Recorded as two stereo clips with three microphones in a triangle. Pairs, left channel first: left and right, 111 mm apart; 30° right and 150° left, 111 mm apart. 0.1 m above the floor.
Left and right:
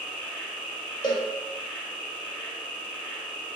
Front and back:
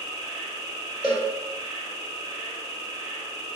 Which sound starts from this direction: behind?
An insect, at 0.0 s.